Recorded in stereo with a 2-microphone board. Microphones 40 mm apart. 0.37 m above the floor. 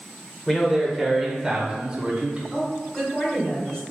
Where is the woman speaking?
20° left (ahead or behind), 1.5 m.